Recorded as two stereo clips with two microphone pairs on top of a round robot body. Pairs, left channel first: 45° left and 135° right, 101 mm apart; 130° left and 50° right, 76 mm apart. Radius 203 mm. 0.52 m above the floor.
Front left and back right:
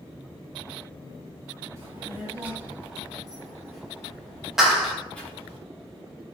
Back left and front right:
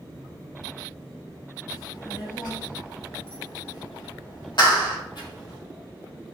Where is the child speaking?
160° left, 3 m; by 5.6 s 120° left, 4.5 m.